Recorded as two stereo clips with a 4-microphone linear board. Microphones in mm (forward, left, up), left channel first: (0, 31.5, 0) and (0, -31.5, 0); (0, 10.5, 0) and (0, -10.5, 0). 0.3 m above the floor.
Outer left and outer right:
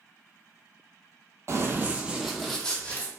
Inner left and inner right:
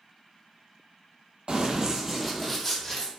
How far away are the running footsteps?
About 0.5 m.